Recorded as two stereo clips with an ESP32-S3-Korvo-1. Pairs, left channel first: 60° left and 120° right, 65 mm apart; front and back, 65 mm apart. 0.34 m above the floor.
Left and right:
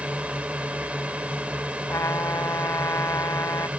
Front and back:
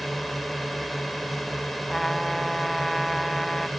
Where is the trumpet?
90° left.